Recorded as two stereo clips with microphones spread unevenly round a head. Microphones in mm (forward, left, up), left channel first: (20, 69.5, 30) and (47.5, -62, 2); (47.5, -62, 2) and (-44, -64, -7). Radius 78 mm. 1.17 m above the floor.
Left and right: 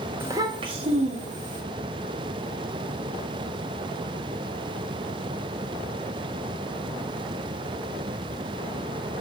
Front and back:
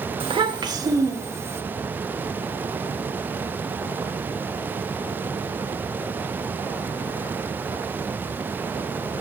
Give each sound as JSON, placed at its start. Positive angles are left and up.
{"t": 0.2, "sound": "a child speaking", "azimuth_deg": -155, "distance_m": 1.3}